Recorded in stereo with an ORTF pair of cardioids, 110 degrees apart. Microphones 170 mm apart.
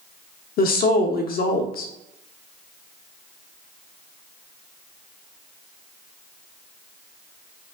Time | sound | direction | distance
0.6 | a woman speaking | 55° left | 0.6 m